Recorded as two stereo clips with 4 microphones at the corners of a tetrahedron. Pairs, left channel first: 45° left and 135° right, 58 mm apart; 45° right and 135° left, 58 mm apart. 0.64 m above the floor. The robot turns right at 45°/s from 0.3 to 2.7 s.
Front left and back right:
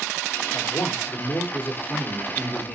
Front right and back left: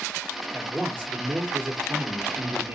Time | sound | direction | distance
0.5 | a man speaking | 50° left | 2 m